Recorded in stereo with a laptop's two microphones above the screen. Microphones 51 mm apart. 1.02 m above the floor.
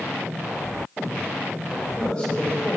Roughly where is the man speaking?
Centre.